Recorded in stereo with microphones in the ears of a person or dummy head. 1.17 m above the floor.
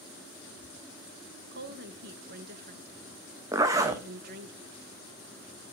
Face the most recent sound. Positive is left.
turn(degrees=-15)  # may be behind; listen again after turning